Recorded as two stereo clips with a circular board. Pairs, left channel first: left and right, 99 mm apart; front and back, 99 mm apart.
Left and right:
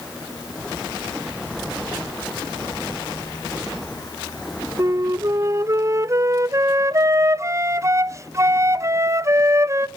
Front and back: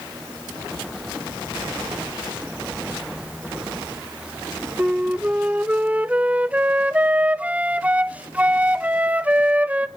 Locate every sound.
4.8 s a flute: 115° right, 0.6 m